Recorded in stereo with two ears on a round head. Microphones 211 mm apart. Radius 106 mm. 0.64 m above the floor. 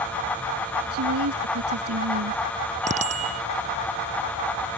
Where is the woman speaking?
75° right (ahead or behind).